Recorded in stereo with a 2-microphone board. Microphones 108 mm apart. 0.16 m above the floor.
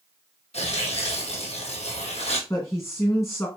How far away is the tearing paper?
About 2.0 m.